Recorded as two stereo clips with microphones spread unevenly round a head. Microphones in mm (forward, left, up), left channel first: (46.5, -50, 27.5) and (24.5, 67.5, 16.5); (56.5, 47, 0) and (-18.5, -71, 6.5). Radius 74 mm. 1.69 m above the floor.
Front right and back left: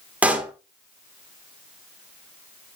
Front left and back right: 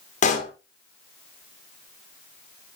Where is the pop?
20° left, 1.9 m.